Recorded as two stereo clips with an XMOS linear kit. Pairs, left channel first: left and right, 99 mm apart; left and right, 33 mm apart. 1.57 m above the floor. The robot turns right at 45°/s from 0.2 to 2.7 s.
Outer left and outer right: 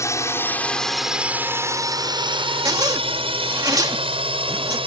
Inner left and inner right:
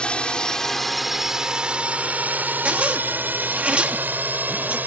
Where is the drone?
30° left (ahead or behind); by 4.9 s 70° right (ahead or behind).